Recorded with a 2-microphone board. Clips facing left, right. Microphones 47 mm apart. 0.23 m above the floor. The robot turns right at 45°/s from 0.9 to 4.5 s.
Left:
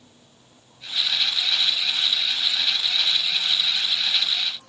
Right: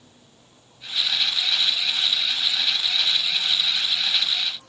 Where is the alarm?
I don't hear an alarm.